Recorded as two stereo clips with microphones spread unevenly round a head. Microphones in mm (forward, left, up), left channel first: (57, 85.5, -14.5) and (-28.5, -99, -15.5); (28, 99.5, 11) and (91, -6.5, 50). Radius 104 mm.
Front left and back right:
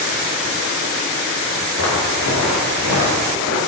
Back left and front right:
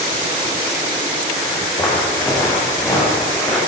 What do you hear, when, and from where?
1.8 s footsteps: 50° left, 5.5 m; by 3.6 s 45° left, 7.5 m